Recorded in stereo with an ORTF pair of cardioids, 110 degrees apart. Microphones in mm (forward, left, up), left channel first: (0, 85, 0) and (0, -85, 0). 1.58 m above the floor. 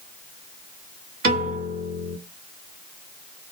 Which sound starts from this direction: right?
A piano, at 1.2 s.